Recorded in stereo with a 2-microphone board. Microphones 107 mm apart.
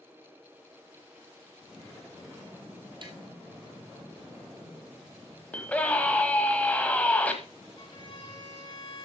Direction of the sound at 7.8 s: 40° left (ahead or behind).